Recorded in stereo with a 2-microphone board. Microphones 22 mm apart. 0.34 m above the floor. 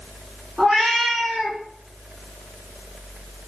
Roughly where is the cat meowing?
Right.